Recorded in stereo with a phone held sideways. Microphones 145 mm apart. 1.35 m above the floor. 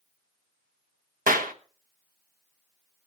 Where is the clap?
70° right (ahead or behind), 1.2 m.